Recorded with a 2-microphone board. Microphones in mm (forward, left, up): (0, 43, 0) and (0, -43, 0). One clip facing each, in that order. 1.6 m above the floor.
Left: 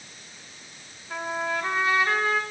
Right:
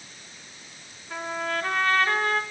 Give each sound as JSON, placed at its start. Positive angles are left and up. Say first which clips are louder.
{"t": 1.1, "sound": "a trumpet", "louder": "left 1 dB", "side_deg": 10, "distance_m": 5.0}